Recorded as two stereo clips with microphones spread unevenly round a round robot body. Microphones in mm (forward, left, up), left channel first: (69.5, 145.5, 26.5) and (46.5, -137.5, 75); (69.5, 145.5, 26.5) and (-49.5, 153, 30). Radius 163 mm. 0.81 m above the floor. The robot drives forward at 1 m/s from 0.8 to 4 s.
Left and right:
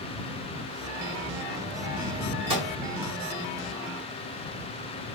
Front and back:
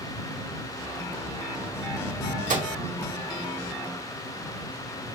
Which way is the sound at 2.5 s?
170° right.